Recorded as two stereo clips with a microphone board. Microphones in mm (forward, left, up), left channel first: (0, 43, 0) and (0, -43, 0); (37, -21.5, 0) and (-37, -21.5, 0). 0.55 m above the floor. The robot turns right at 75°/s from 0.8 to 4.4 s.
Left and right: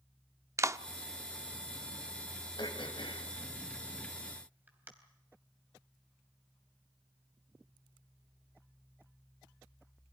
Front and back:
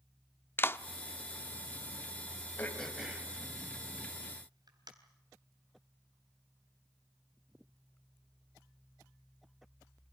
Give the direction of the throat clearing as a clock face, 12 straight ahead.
10 o'clock.